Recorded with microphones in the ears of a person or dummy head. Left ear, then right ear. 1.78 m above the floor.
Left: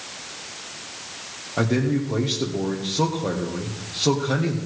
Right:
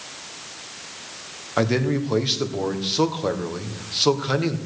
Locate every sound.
1.6 s a man speaking: 55° right (ahead or behind), 1.4 m